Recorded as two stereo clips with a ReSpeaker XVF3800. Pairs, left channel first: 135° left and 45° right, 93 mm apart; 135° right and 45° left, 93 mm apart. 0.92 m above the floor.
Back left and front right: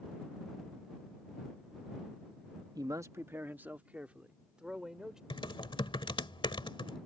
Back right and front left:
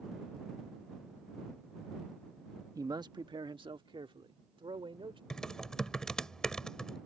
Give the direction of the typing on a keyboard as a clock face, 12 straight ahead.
7 o'clock.